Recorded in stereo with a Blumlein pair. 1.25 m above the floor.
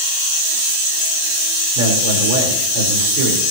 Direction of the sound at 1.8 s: 50° right.